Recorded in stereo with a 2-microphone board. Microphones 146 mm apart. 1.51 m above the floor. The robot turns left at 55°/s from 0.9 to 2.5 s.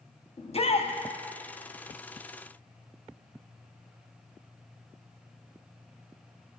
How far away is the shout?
About 0.6 m.